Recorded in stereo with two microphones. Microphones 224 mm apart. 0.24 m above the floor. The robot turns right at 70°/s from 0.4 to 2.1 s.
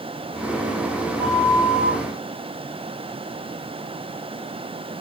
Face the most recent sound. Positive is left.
turn(degrees=55)